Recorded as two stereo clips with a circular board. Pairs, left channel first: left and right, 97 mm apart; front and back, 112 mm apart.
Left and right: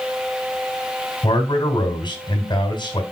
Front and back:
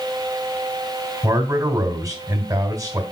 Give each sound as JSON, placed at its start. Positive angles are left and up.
{"t": 1.2, "sound": "a man speaking", "azimuth_deg": 120, "distance_m": 2.5}